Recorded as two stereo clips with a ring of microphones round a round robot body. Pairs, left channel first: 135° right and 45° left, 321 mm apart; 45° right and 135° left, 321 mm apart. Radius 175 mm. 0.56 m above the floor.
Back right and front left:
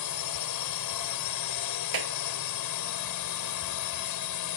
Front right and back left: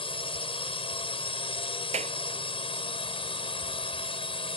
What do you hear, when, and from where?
0.0 s a drone: 120° right
1.9 s a clap: 65° left